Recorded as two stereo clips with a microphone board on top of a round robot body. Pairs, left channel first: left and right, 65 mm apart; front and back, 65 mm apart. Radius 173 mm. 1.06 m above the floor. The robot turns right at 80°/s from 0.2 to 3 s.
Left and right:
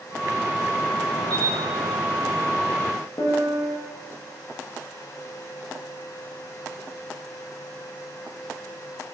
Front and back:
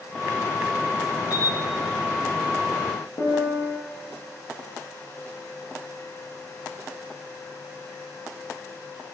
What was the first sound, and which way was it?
A camera shutter, 20° left.